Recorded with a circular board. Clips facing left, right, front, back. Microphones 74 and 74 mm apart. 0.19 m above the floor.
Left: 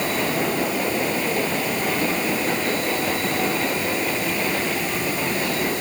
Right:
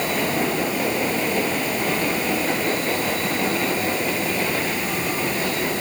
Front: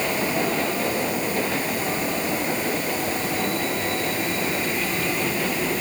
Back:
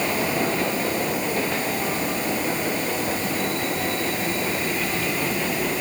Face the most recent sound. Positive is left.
No sound to turn to.